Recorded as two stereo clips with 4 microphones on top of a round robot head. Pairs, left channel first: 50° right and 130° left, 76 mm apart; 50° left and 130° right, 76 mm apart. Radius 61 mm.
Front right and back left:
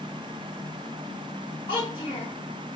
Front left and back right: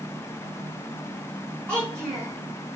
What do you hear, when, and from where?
1.7 s a child speaking: 35° right, 1.1 m